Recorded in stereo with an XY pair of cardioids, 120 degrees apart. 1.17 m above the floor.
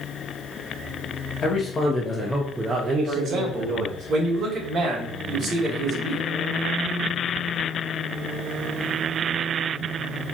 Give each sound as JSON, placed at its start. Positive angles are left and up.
{"t": 1.4, "sound": "a man speaking", "azimuth_deg": 40, "distance_m": 1.2}
{"t": 3.0, "sound": "a man speaking", "azimuth_deg": -50, "distance_m": 1.6}